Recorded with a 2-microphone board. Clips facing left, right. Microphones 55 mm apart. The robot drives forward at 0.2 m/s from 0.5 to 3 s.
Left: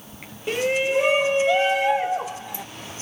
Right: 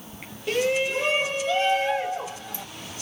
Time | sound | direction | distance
0.5 | a shout | 20° left (ahead or behind) | 1.1 m